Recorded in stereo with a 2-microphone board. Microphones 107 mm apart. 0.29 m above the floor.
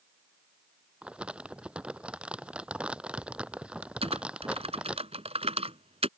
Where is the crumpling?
10° right (ahead or behind).